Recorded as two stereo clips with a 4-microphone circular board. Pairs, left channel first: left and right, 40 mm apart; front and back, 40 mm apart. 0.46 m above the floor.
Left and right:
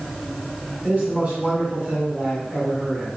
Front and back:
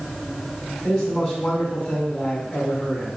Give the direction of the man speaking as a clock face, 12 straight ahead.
2 o'clock.